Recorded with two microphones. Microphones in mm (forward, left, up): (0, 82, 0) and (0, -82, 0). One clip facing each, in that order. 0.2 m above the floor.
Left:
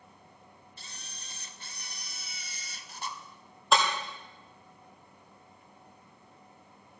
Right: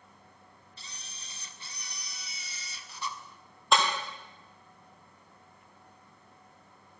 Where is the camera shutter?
45° left (ahead or behind), 0.6 m.